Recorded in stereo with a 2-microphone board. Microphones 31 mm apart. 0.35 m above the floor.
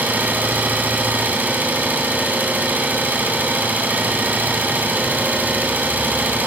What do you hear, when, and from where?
0.0 s an engine running: 70° right (ahead or behind), 1.3 m